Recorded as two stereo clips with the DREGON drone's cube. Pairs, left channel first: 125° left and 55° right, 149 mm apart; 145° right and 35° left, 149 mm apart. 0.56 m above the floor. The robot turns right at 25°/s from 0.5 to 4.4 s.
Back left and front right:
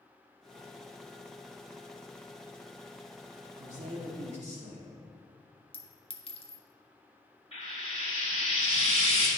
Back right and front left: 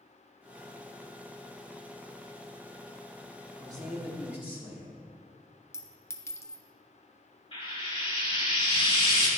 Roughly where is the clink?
Behind left.